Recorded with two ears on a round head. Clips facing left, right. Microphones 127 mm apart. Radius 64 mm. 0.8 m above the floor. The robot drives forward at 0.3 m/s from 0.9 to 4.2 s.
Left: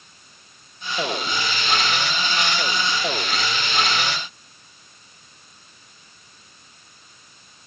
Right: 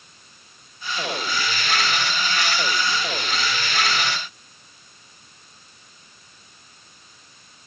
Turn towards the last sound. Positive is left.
No sound to turn to.